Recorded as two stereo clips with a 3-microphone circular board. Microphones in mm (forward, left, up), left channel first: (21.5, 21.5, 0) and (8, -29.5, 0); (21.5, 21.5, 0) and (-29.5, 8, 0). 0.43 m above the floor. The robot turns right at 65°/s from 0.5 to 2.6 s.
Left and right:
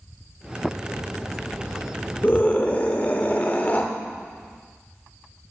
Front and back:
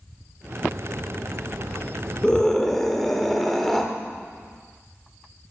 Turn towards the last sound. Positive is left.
turn(degrees=95)